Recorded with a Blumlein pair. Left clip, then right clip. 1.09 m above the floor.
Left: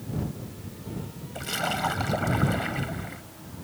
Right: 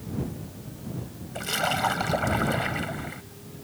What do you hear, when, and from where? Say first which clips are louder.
1.4 s a splash: right 2 dB; 10° right